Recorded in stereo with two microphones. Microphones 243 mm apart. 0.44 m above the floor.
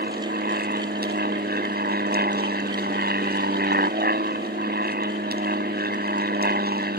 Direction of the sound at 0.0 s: 40° right (ahead or behind).